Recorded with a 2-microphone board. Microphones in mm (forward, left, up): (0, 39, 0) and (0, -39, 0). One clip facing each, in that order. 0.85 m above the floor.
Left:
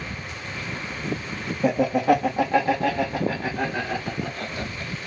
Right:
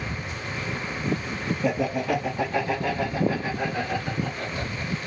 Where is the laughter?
40° left (ahead or behind), 1.0 m; by 5.1 s 50° left (ahead or behind), 3.5 m.